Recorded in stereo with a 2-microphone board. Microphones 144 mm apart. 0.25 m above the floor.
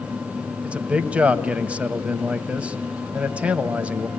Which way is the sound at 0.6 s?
10° right (ahead or behind).